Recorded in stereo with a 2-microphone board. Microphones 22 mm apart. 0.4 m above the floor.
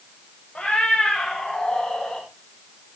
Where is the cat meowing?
70° left (ahead or behind), 4.5 m; by 2.2 s 60° left (ahead or behind), 5 m.